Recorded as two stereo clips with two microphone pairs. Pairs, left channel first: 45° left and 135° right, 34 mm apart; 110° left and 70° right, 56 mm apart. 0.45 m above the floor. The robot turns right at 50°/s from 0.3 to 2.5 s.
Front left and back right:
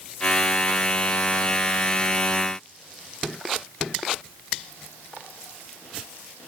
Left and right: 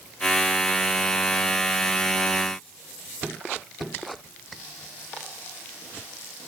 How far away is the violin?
No violin in this recording.